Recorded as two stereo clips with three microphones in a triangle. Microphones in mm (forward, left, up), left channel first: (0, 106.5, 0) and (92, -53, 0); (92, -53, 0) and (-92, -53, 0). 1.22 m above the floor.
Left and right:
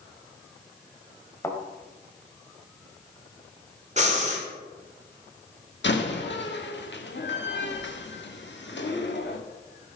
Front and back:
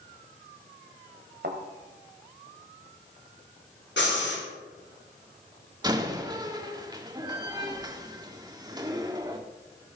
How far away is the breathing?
About 2.5 m.